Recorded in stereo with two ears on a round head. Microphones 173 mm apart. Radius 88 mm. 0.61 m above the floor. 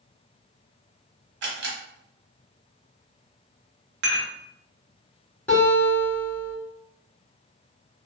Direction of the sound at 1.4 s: 70° right (ahead or behind).